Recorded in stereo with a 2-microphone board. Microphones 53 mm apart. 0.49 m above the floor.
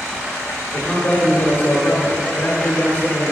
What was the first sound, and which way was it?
A man speaking, 30° left (ahead or behind).